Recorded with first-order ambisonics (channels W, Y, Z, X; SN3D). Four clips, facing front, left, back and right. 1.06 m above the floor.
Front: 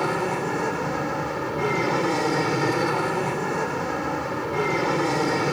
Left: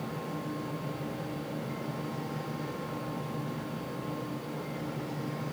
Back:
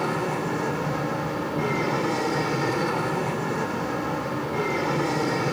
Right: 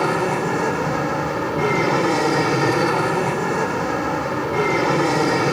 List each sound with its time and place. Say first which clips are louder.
0.0 s an aircraft: right 17 dB, front 2 dB; 80° right